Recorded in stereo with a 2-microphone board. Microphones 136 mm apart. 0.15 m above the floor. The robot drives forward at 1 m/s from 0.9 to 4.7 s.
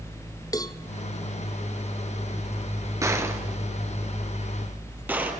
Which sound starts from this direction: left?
A cowbell, at 0.5 s.